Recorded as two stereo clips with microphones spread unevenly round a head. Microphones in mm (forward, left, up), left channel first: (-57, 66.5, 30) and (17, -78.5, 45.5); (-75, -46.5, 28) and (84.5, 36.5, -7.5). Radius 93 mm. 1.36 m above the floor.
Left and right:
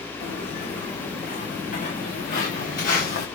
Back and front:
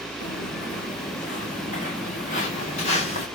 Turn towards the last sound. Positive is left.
turn(degrees=155)